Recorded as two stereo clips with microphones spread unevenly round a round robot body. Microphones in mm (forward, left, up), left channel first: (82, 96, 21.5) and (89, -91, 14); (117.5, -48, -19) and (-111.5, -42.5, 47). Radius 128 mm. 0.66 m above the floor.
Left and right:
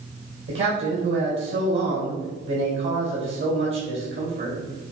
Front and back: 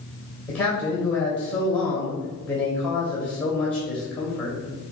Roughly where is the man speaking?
Right.